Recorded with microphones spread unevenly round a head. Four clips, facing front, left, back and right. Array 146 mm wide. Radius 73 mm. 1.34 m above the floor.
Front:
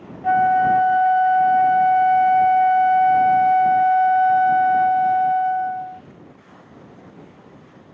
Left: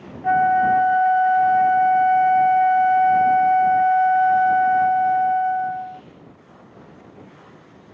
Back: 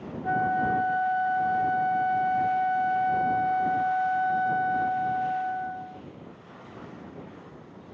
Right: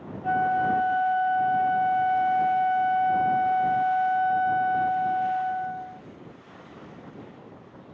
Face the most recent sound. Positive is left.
turn(degrees=30)